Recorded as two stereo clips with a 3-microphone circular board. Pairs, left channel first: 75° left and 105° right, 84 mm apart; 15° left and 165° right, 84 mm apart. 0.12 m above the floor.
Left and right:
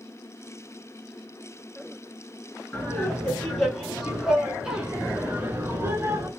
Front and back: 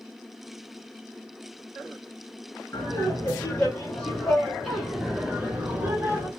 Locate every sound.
2.7 s laughter: 20° left, 1.8 m; by 6.3 s 120° right, 1.8 m